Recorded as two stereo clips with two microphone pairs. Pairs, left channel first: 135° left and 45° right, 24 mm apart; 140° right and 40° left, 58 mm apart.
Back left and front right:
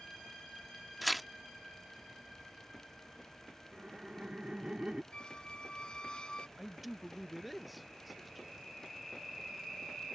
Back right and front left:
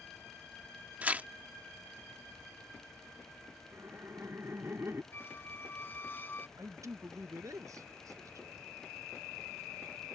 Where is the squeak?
175° left.